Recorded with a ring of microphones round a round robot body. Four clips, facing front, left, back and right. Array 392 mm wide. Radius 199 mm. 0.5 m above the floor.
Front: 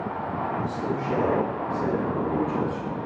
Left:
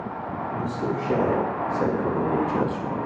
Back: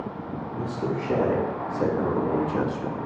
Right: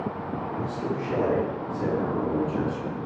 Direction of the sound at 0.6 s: 130° left.